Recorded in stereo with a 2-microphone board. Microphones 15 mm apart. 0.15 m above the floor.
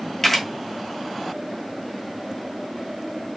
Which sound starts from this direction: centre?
A camera shutter, at 0.2 s.